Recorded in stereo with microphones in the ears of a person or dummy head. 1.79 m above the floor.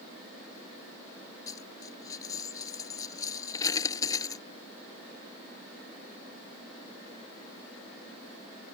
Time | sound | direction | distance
1.5 | a dropped coin | 20° left (ahead or behind) | ?